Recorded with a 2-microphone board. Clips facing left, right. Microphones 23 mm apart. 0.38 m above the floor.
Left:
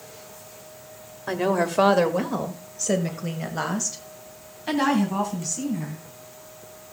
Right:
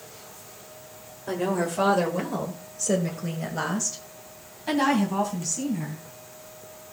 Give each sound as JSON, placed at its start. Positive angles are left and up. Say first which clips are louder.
{"t": 1.3, "sound": "a woman speaking", "louder": "left 3 dB", "side_deg": 40, "distance_m": 1.6}